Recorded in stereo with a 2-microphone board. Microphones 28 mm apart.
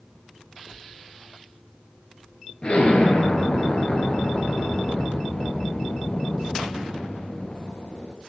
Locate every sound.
2.6 s an explosion: 35° left (ahead or behind), 2.5 m